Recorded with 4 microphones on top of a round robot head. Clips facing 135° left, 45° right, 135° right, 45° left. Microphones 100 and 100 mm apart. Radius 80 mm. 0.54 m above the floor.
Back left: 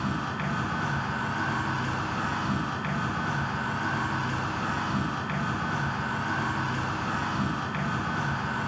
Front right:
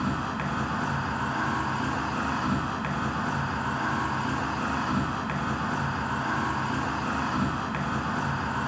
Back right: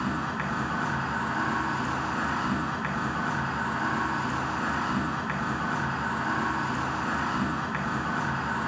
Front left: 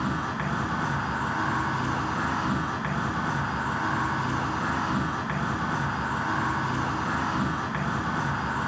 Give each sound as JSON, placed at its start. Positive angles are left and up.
{"t": 0.0, "sound": "an insect", "azimuth_deg": -55, "distance_m": 2.0}